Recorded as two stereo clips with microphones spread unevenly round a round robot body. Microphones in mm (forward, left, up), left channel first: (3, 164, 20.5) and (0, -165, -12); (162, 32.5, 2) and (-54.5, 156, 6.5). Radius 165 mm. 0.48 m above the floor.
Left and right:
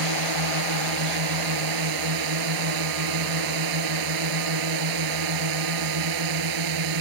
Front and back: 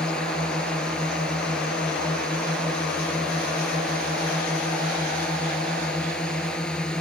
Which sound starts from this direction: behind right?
A drone, at 0.0 s.